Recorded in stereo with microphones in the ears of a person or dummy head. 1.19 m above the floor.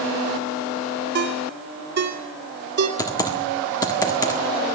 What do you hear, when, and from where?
1.1 s a ringtone: 60° right (ahead or behind), 2 m
3.0 s typing on a keyboard: 20° left (ahead or behind), 1.5 m